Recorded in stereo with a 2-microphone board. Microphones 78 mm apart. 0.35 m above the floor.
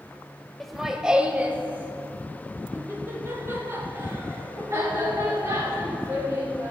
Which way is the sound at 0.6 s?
5° left (ahead or behind).